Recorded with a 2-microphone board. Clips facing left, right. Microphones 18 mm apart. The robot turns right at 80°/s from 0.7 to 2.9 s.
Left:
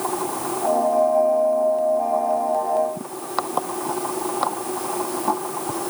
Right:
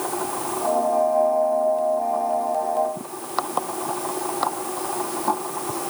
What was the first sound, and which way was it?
Only background noise.